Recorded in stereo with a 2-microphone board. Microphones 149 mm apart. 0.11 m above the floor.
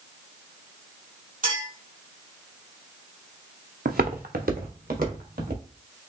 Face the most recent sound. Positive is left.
turn(degrees=-80)